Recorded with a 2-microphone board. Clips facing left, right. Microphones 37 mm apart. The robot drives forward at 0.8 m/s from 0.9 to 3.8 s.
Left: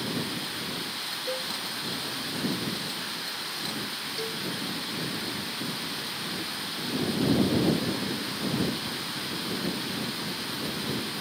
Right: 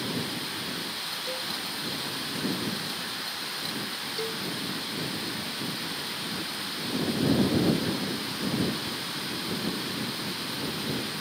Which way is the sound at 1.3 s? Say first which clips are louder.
Left 3 dB; 15° left (ahead or behind).